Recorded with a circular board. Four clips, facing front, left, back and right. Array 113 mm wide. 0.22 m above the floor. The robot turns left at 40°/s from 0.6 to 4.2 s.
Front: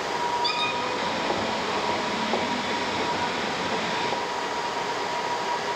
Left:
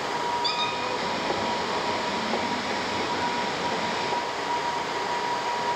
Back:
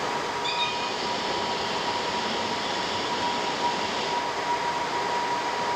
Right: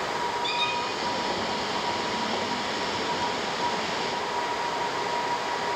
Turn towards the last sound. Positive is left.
turn(degrees=-105)